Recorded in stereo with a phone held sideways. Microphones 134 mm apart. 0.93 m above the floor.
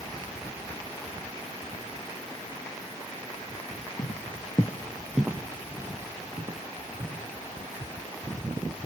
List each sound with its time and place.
4.0 s footsteps: 55° left (ahead or behind), 1.4 m; by 7.2 s 40° right (ahead or behind), 3.5 m